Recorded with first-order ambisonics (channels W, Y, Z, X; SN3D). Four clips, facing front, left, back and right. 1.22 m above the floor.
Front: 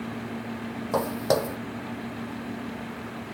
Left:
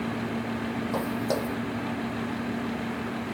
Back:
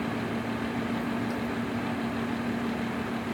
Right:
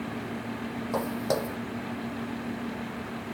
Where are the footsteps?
5° right.